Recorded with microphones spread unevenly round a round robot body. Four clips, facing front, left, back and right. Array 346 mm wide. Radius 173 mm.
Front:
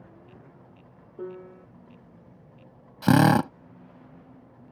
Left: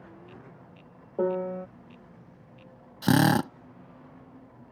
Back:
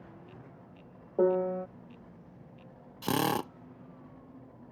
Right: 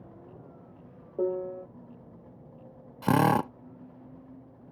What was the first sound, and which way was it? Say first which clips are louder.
A piano: left 2 dB, back 12 dB; 125° left.